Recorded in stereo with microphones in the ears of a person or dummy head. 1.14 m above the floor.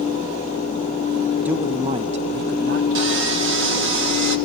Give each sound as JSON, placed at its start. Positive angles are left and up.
{"t": 1.4, "sound": "a man speaking", "side_deg": -10, "distance_m": 0.8}
{"t": 3.0, "sound": "sawing", "side_deg": -60, "distance_m": 1.2}